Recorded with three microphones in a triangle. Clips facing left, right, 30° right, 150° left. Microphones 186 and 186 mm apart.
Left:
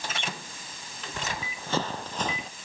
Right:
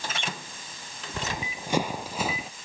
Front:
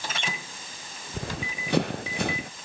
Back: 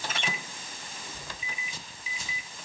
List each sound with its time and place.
1.1 s running footsteps: 20° right; by 2.5 s 5° right